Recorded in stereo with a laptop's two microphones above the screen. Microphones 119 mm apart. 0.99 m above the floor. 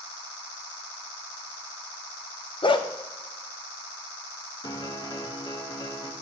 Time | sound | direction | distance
2.6 | a dog barking | 45° left (ahead or behind) | 0.5 m
4.6 | a piano | 35° left (ahead or behind) | 0.7 m